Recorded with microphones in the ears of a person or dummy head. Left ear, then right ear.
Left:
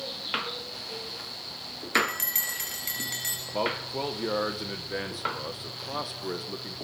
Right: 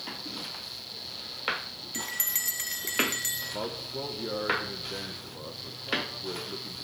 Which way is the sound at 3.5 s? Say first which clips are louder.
Left 5 dB; 75° left (ahead or behind).